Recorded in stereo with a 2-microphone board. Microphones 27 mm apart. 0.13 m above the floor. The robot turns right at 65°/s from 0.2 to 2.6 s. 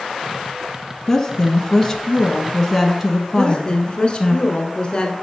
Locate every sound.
1.1 s a woman speaking: 20° left (ahead or behind), 1.0 m; by 4.4 s centre (ahead or behind), 1.0 m
3.4 s a woman speaking: 35° left (ahead or behind), 1.3 m